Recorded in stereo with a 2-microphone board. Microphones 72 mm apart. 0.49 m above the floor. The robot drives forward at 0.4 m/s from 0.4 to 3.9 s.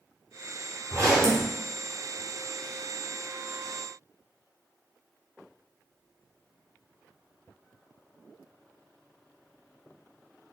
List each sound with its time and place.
0.9 s a zipper: 40° right (ahead or behind), 1.0 m; by 1.5 s 50° right (ahead or behind), 0.9 m